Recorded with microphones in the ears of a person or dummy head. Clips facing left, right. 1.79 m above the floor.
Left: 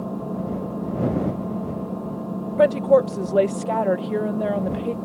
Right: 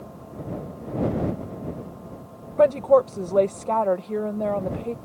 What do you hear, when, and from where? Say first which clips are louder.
0.0 s an engine running: left 10 dB; 60° left (ahead or behind)
2.6 s a woman speaking: left 1 dB; 10° left (ahead or behind)